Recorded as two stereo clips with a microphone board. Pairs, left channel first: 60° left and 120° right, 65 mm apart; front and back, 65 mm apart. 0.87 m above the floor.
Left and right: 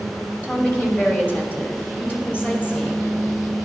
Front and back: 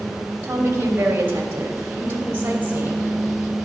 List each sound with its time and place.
0.4 s a woman speaking: 125° left, 3 m; by 3.1 s 120° left, 4.5 m